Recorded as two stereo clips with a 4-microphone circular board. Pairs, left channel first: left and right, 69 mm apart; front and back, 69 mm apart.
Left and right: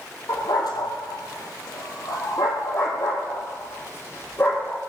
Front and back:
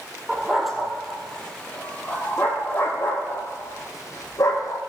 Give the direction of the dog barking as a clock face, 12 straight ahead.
9 o'clock.